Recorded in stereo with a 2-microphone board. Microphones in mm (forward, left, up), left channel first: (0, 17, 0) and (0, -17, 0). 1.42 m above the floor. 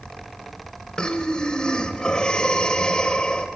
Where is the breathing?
20° left (ahead or behind), 1.2 m.